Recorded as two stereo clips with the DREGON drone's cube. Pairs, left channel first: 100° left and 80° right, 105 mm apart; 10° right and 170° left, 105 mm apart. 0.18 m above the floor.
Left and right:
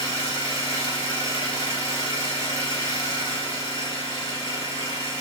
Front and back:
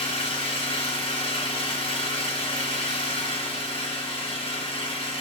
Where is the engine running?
20° right, 1.9 m.